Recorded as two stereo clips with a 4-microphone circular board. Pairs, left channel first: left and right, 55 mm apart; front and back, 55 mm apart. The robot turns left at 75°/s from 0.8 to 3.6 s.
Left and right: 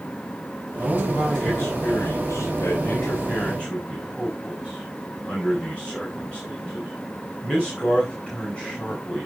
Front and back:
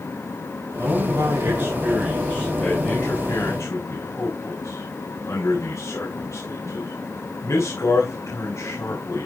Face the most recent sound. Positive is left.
turn(degrees=15)